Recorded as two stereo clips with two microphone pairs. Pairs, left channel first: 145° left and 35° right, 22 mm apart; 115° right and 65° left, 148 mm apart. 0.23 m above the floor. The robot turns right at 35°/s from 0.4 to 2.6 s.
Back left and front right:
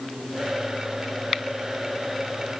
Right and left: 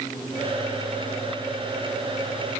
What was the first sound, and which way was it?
Only background noise.